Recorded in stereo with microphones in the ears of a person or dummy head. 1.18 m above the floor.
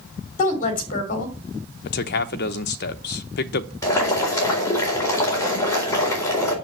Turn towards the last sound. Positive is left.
turn(degrees=20)  # may be behind; listen again after turning